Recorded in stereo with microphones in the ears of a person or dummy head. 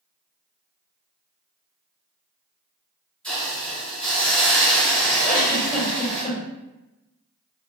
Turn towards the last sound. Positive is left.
turn(degrees=35)  # may be behind; listen again after turning